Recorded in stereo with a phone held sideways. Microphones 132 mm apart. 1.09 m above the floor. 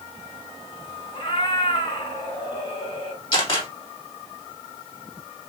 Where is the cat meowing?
40° left (ahead or behind), 1.3 m.